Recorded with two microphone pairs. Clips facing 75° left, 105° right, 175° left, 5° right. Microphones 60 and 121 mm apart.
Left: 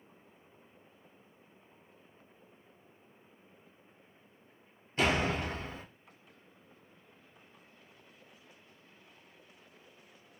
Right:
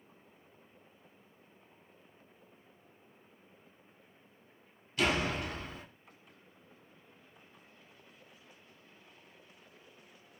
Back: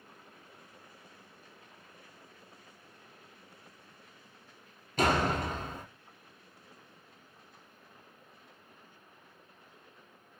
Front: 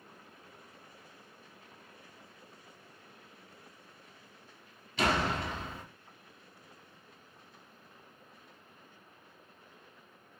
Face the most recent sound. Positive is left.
turn(degrees=130)